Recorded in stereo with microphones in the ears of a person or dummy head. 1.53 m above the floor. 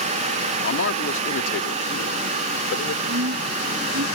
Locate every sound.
0.6 s a man speaking: 70° left (ahead or behind)
3.1 s a woman speaking: 80° right